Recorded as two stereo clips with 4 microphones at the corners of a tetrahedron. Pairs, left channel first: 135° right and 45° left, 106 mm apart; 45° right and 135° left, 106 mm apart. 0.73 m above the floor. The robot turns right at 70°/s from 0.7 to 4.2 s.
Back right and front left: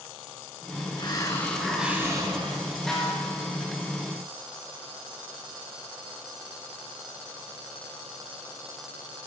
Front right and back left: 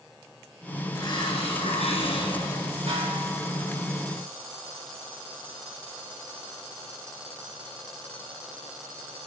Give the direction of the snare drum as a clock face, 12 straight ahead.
7 o'clock.